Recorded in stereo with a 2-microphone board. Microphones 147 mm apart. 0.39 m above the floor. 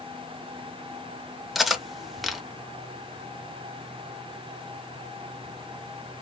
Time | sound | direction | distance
1.6 | cutlery clinking | centre (ahead or behind) | 0.5 m